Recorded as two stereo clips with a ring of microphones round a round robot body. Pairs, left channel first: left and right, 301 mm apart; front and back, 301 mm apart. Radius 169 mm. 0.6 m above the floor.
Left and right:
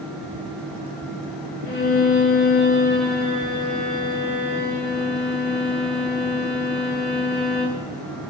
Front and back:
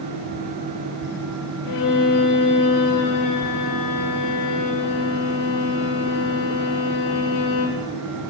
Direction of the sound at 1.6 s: 35° left.